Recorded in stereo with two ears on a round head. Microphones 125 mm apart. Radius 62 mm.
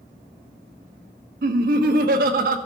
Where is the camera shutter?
No camera shutter in this recording.